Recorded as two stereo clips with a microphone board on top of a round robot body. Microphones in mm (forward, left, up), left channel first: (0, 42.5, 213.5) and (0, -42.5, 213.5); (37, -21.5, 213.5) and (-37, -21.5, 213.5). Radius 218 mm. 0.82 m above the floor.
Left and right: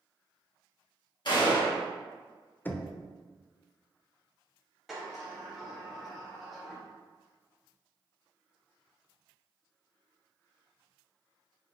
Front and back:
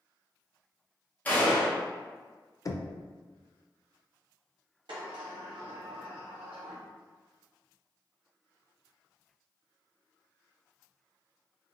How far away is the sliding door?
About 0.9 m.